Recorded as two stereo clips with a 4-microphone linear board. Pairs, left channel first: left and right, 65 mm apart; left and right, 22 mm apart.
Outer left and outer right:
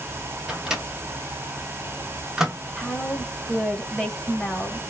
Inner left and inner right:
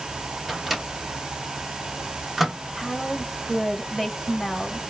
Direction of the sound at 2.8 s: 5° left (ahead or behind).